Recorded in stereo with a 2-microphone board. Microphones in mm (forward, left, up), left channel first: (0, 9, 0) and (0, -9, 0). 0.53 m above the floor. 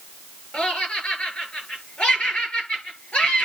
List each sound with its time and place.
0.5 s laughter: 70° left (ahead or behind), 8 m